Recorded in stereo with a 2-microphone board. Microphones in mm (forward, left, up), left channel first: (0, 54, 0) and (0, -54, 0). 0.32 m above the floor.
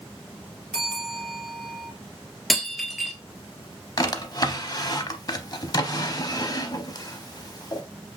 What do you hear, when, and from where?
0.7 s a bell: 10° left (ahead or behind), 2.5 m
2.5 s breaking glass: centre (ahead or behind), 1.3 m
4.0 s a drawer: 35° left (ahead or behind), 0.6 m